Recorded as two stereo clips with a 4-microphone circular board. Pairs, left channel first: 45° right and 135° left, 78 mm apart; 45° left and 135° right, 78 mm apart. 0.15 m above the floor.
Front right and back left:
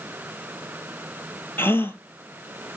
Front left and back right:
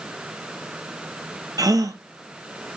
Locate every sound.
1.6 s a gasp: 105° right, 0.6 m